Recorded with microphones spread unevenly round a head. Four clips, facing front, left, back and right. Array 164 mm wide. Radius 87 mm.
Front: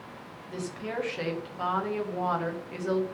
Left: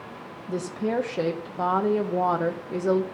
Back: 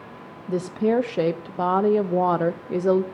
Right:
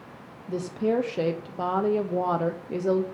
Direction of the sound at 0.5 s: 175° right.